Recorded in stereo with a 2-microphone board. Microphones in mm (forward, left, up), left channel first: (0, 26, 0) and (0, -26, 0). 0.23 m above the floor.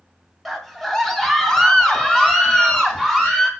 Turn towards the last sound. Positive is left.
turn(degrees=15)  # may be behind; listen again after turning